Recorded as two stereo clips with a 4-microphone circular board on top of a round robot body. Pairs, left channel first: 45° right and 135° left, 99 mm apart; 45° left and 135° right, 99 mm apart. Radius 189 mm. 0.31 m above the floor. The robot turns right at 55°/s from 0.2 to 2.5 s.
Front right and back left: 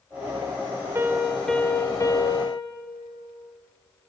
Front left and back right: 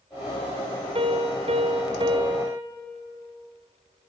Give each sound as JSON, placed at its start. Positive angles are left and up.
{"t": 0.9, "sound": "a piano", "azimuth_deg": -160, "distance_m": 0.7}